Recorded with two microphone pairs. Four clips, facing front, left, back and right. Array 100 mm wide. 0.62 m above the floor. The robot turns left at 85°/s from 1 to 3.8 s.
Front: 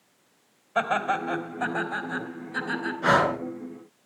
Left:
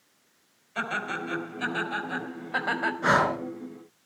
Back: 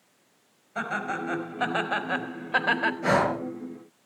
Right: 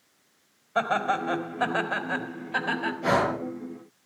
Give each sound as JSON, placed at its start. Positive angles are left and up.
{"t": 0.8, "sound": "laughter", "azimuth_deg": -65, "distance_m": 4.0}
{"t": 3.0, "sound": "breathing", "azimuth_deg": 50, "distance_m": 4.5}